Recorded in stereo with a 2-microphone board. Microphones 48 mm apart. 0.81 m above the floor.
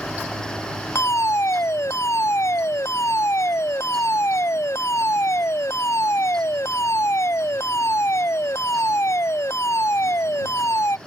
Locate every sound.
0.9 s a fire alarm: 70° left (ahead or behind)